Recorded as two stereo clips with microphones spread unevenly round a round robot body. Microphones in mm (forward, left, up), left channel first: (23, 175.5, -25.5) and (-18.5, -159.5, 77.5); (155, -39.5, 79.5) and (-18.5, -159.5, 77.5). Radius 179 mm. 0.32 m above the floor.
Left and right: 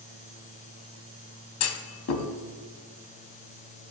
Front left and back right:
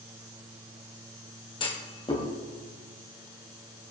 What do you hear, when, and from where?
1.6 s a clunk: 100° left, 1.8 m